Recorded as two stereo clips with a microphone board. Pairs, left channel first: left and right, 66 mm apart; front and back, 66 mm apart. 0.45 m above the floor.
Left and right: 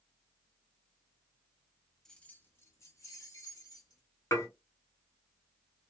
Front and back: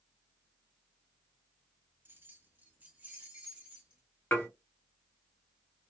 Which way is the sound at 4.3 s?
60° left.